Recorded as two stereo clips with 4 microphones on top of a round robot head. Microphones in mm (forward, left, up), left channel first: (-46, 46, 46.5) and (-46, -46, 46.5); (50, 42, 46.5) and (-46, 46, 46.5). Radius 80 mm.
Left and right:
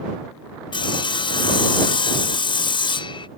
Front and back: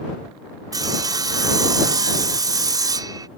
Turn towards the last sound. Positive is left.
turn(degrees=125)